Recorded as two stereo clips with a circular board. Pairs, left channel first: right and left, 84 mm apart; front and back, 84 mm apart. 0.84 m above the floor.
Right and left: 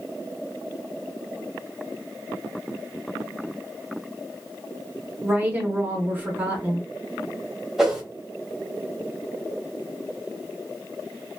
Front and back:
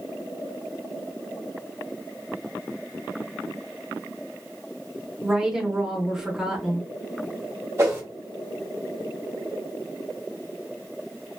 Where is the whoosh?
170° left, 1.0 m.